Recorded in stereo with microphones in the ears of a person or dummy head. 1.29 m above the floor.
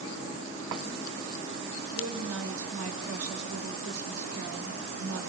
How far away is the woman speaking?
About 6.5 m.